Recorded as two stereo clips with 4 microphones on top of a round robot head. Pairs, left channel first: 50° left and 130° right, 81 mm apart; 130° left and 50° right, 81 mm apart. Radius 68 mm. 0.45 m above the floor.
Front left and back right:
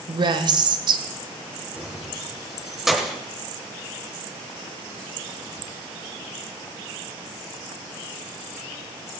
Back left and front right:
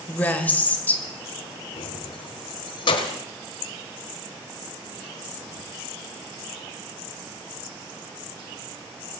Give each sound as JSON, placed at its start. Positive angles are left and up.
{"t": 0.1, "sound": "a woman speaking", "azimuth_deg": -155, "distance_m": 1.7}
{"t": 1.8, "sound": "keys jangling", "azimuth_deg": 140, "distance_m": 1.6}